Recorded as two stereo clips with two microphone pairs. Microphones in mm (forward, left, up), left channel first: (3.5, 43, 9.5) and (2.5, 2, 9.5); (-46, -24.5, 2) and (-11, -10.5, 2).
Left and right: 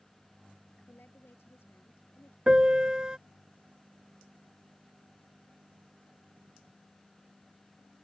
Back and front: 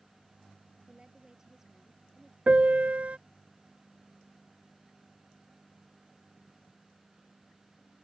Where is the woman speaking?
85° left; by 2.4 s 110° left.